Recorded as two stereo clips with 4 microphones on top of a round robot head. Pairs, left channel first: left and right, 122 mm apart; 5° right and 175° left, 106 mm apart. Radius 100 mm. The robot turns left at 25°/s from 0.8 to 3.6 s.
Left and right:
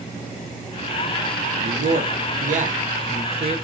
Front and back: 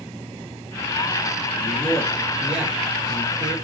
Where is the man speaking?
80° right, 1.1 m; by 3.6 s 130° right, 1.1 m.